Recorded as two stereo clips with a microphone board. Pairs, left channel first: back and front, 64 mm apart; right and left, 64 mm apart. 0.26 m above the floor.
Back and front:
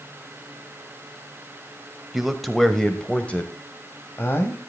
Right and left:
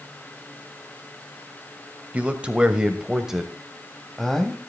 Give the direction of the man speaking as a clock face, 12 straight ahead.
9 o'clock.